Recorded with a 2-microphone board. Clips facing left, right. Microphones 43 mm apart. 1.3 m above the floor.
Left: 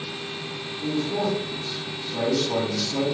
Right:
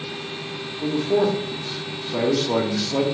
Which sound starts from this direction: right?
A man speaking, at 0.8 s.